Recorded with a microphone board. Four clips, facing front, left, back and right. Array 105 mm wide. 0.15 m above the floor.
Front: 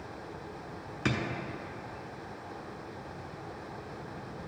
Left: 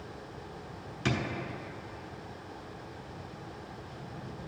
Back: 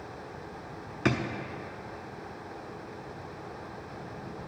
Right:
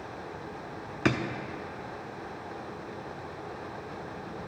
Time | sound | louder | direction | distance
1.1 | a drawer | right 5 dB, back 4 dB | 110° right | 0.5 m